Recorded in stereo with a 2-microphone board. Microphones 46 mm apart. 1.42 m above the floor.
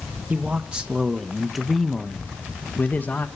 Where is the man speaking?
30° right (ahead or behind), 1.4 m; by 3.3 s 40° left (ahead or behind), 1.3 m.